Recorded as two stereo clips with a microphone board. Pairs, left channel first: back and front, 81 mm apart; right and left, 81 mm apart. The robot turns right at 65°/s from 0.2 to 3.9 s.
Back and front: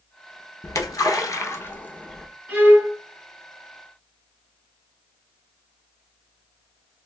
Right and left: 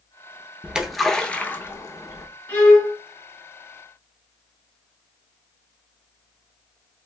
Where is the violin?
40° right, 1.0 m; by 3.0 s 10° right, 1.0 m.